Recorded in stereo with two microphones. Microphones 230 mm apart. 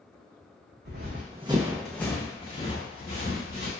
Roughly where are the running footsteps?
Right.